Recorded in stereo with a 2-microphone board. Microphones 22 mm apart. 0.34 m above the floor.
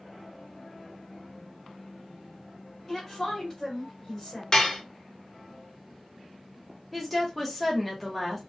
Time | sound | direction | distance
2.9 | a woman speaking | 5° left (ahead or behind) | 1.7 m
4.5 | dishes clattering | 30° left (ahead or behind) | 0.6 m
6.9 | a woman speaking | centre (ahead or behind) | 1.0 m